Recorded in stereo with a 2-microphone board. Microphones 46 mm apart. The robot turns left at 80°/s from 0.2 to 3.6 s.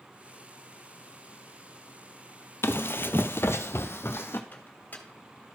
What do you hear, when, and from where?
2.6 s running footsteps: 60° left (ahead or behind), 0.5 m
4.5 s a microwave: 40° left (ahead or behind), 1.6 m